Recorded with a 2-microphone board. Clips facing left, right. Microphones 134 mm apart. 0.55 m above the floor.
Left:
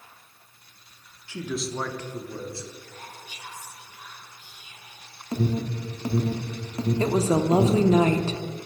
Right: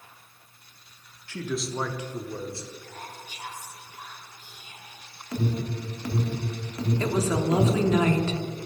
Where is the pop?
No pop in this recording.